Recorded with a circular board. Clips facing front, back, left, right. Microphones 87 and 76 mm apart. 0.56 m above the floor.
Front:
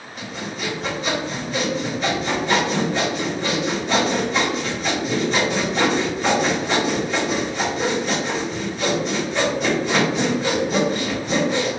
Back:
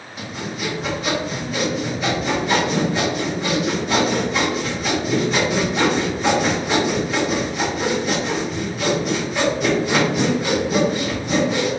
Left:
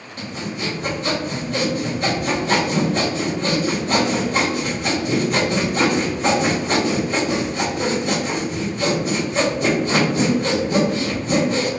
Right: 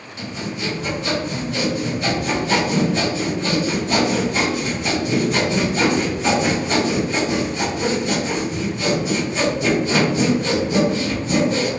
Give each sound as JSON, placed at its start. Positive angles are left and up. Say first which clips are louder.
{"t": 0.2, "sound": "sawing", "louder": "back 2 dB, even", "azimuth_deg": 95, "distance_m": 1.0}